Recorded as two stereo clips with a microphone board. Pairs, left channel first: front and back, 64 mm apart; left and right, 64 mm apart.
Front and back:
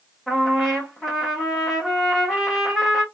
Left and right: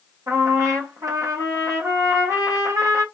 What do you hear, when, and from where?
0.3 s a trumpet: 90° right, 1.2 m